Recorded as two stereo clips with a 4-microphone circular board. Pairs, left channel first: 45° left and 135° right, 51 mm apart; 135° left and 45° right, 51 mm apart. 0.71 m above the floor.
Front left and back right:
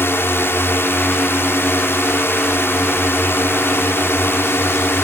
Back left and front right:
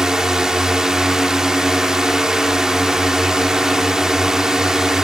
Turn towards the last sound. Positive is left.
turn(degrees=30)